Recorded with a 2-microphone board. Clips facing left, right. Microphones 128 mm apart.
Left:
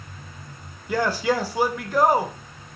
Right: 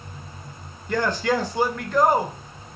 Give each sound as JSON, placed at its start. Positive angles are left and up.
{"t": 0.9, "sound": "a man speaking", "side_deg": 10, "distance_m": 0.9}